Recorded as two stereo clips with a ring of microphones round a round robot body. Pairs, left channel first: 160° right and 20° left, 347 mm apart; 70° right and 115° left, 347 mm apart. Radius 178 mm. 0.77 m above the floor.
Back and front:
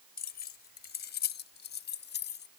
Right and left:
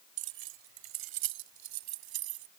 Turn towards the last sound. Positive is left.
turn(degrees=140)